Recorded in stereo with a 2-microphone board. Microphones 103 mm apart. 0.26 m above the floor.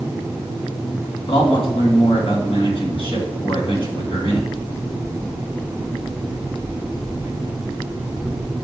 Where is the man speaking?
60° left (ahead or behind), 3 m.